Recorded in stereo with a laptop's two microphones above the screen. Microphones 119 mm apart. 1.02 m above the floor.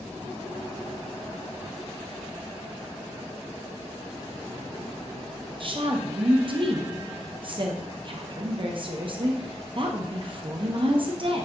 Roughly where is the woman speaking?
Right.